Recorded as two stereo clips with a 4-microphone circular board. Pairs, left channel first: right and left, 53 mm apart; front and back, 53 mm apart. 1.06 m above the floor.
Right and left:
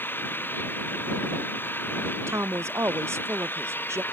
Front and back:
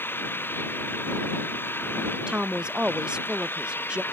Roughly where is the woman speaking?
Left.